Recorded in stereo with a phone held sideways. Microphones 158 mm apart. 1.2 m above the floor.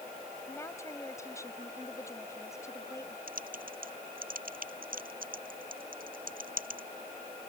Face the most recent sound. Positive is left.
turn(degrees=-65)  # may be behind; listen again after turning